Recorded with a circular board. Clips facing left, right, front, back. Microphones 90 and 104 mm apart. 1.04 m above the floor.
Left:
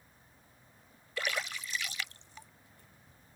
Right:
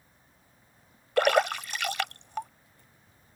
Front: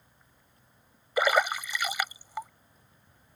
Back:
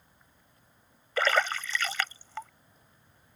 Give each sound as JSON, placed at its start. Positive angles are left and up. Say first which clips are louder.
{"t": 1.2, "sound": "a splash", "louder": "right 14 dB, front 2 dB", "azimuth_deg": -75}